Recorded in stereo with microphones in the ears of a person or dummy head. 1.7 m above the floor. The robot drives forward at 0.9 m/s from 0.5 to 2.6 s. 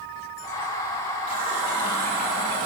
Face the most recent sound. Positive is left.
turn(degrees=-60)  # may be behind; listen again after turning